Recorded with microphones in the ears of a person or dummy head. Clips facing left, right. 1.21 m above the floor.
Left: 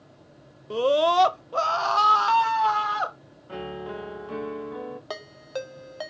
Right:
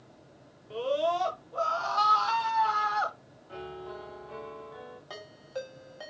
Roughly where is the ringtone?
Left.